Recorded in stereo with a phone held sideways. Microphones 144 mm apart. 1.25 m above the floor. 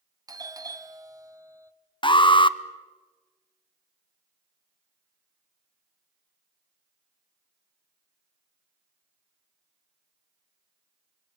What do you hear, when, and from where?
0.3 s a doorbell: 25° right (ahead or behind), 1.1 m
2.0 s an alarm: 35° left (ahead or behind), 0.6 m